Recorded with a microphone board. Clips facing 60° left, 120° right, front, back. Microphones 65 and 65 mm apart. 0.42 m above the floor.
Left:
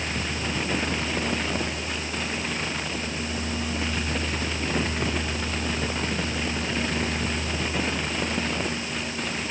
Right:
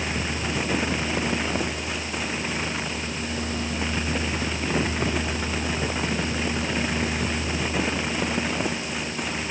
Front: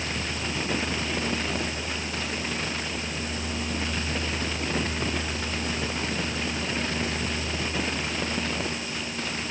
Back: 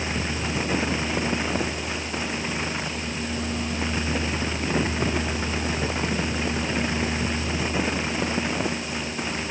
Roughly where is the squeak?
I don't hear a squeak.